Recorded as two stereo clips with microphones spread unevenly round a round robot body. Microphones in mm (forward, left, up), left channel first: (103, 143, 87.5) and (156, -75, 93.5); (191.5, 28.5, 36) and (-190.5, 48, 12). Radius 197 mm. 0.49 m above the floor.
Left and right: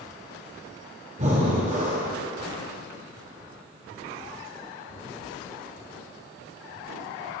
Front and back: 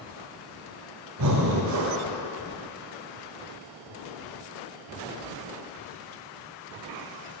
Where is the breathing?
140° right, 1.1 m.